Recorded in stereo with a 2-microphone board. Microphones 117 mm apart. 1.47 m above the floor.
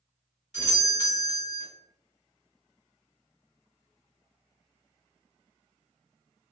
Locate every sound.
0.5 s a doorbell: 65° left (ahead or behind), 1.1 m